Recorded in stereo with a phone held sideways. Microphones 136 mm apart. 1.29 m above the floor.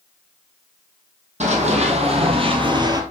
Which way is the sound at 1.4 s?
60° right (ahead or behind).